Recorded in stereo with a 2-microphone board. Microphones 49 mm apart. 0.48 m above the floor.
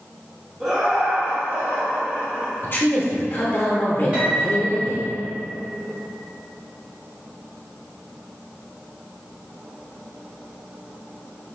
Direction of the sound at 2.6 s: 40° left (ahead or behind).